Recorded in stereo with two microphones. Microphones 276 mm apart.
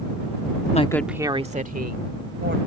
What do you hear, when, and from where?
0.7 s a woman speaking: 25° left (ahead or behind); by 2.6 s 40° right (ahead or behind)